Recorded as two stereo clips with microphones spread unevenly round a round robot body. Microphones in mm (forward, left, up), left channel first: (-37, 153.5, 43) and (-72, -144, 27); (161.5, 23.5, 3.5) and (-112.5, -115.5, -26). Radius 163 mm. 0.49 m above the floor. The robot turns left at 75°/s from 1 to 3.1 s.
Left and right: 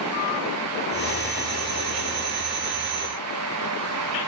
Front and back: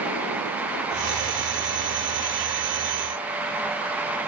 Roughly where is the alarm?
I don't hear an alarm.